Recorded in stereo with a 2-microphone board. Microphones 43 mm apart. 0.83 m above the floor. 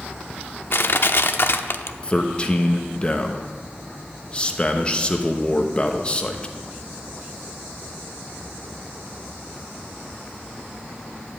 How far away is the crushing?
About 0.6 m.